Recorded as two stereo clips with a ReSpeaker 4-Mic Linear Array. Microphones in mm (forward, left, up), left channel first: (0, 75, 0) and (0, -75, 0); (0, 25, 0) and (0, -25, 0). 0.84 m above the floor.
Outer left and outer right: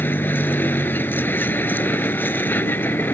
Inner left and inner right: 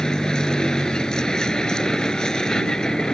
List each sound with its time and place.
0.0 s a vehicle: 15° left (ahead or behind)